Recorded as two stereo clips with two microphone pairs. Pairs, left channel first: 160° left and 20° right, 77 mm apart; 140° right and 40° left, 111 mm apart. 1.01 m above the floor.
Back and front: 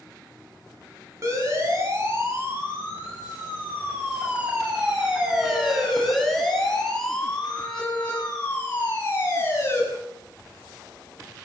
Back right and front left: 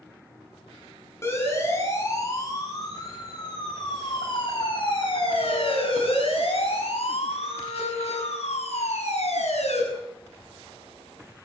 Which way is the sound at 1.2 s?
75° right.